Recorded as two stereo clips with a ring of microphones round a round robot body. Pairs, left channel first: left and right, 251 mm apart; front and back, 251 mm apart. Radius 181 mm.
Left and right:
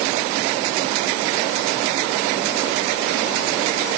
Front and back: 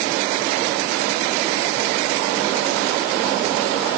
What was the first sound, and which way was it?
Only background noise.